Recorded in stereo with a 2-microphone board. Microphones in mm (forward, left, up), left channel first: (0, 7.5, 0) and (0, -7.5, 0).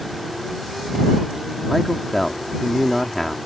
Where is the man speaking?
25° left (ahead or behind).